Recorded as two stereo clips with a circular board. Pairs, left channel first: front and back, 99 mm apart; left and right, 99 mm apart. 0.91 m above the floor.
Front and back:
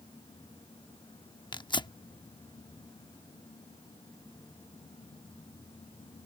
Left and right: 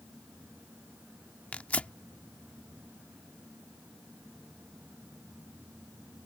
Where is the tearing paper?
20° left.